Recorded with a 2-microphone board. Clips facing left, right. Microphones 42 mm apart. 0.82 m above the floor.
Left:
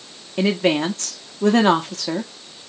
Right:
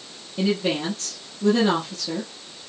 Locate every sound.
0.4 s a woman speaking: 65° left (ahead or behind), 1.1 m